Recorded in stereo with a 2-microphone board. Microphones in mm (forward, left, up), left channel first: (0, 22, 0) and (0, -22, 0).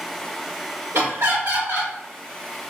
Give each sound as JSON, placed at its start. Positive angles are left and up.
{"t": 0.9, "sound": "laughter", "side_deg": -65, "distance_m": 1.2}